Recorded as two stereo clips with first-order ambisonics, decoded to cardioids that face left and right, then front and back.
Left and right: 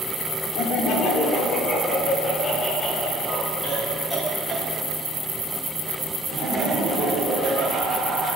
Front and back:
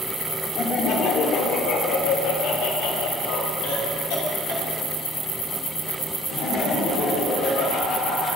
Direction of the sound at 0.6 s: 60° left.